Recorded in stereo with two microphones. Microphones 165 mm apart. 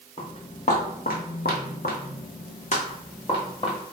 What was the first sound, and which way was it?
Footsteps, 40° left (ahead or behind).